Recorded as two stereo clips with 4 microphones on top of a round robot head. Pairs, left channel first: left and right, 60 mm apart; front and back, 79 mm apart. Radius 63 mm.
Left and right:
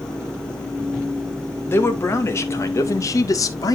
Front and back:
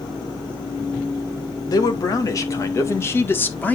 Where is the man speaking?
40° left, 2.5 m; by 3.8 s 75° left, 1.7 m.